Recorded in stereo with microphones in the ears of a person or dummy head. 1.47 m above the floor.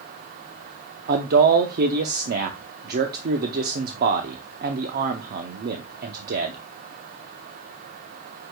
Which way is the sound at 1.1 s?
50° right (ahead or behind).